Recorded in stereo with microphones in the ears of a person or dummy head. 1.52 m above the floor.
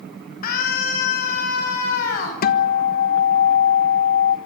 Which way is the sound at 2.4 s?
55° left (ahead or behind).